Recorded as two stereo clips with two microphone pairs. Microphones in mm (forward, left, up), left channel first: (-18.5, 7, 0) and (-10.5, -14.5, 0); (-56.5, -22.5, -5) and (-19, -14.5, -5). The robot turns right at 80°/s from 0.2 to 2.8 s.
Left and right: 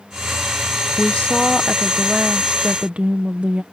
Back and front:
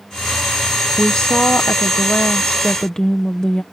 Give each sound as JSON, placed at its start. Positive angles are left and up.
{"t": 1.0, "sound": "a woman speaking", "azimuth_deg": 115}